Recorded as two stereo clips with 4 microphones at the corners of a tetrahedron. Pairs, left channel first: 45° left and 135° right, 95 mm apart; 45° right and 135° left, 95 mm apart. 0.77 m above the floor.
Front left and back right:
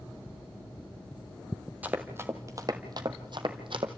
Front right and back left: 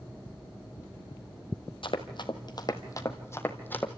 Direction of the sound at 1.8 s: 65° right.